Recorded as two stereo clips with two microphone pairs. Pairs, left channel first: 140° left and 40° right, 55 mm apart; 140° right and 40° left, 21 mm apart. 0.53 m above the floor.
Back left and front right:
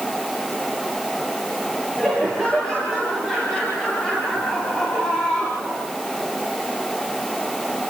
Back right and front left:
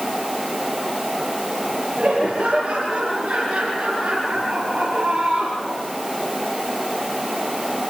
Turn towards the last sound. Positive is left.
turn(degrees=70)